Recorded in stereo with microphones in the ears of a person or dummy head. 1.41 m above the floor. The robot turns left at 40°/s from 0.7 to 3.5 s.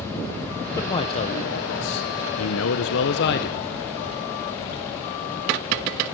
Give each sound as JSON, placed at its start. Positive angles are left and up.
{"t": 0.8, "sound": "a man speaking", "azimuth_deg": 165, "distance_m": 1.1}